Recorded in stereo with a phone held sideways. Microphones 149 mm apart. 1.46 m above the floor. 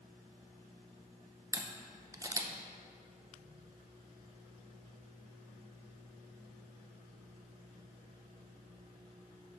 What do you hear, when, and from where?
1.5 s a camera shutter: 20° right (ahead or behind), 0.6 m